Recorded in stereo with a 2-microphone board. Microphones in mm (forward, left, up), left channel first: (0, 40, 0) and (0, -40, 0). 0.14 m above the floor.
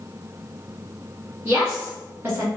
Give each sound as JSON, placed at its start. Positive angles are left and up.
{"t": 1.4, "sound": "a woman speaking", "side_deg": -25, "distance_m": 1.1}